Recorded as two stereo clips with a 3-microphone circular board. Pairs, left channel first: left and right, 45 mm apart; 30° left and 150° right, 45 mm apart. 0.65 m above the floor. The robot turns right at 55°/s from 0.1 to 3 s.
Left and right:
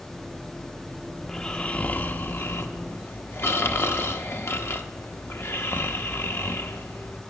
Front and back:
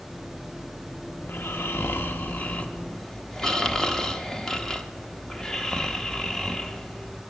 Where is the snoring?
5° left, 0.8 m; by 7.2 s 105° left, 0.8 m.